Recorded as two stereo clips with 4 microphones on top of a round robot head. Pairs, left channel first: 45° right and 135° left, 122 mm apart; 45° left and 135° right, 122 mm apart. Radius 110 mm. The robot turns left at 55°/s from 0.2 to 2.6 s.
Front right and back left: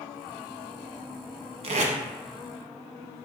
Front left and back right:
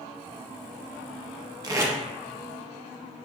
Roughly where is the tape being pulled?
Behind.